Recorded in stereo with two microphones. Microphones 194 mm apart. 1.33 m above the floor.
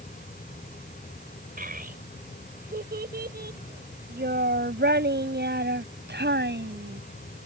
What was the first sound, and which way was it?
A child speaking, 50° right (ahead or behind).